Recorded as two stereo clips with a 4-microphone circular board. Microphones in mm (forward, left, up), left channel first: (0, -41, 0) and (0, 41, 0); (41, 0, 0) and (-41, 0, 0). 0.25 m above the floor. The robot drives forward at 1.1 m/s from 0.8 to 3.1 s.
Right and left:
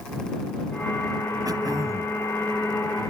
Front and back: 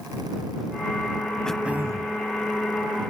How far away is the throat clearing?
About 0.6 m.